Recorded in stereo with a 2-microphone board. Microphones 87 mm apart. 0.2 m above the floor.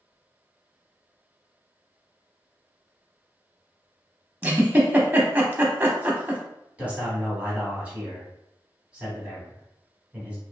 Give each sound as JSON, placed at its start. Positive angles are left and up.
{"t": 4.4, "sound": "a giggle", "side_deg": -20, "distance_m": 0.5}
{"t": 6.8, "sound": "a man speaking", "side_deg": -15, "distance_m": 1.2}